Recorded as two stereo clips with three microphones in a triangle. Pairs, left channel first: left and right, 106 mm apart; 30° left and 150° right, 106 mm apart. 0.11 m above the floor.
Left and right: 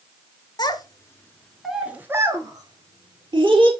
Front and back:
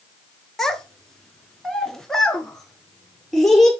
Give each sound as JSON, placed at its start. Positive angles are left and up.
{"t": 0.6, "sound": "a child speaking", "azimuth_deg": 115, "distance_m": 1.3}